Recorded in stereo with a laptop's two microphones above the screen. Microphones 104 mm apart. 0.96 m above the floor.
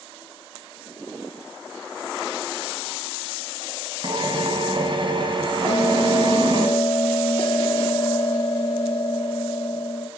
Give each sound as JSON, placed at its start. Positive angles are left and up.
{"t": 4.0, "sound": "a drill", "side_deg": -50, "distance_m": 3.0}
{"t": 5.7, "sound": "a bell", "side_deg": 55, "distance_m": 1.7}